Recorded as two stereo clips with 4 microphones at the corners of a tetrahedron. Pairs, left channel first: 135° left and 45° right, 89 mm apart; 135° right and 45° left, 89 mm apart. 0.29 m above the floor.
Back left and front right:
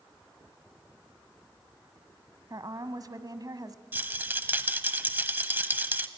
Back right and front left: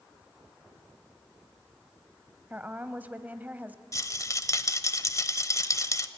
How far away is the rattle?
About 0.9 m.